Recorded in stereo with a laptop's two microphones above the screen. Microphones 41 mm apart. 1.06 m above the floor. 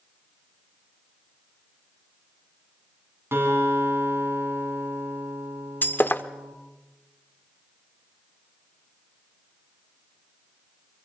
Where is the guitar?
70° right (ahead or behind), 7.5 m.